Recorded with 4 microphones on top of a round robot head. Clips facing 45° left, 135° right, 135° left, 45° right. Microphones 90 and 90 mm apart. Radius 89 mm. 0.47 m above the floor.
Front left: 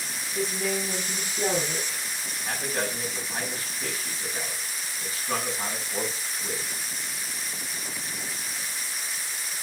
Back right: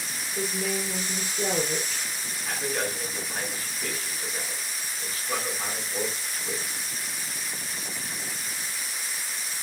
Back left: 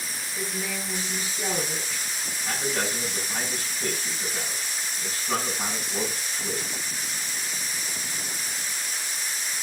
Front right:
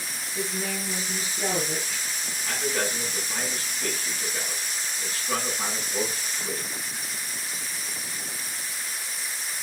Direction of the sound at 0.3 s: 25° left.